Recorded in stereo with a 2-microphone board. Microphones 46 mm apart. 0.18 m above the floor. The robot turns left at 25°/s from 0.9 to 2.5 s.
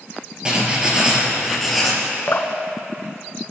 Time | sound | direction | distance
0.5 | writing | 20° right (ahead or behind) | 2 m
2.3 | dripping | 45° left (ahead or behind) | 0.6 m